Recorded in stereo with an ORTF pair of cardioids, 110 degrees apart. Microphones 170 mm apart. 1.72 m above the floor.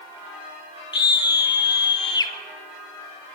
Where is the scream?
25° left, 3.5 m.